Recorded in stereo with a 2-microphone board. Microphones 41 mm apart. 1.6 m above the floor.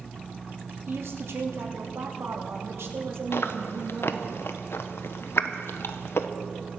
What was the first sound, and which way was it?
A woman speaking, 75° right (ahead or behind).